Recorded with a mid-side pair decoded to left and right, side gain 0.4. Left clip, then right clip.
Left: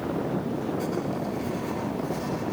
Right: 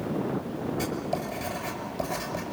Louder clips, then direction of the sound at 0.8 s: Left 1 dB; 65° right.